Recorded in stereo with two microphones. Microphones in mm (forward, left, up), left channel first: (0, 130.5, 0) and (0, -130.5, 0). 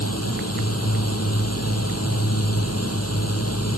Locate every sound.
0.0 s a drone: 65° left (ahead or behind)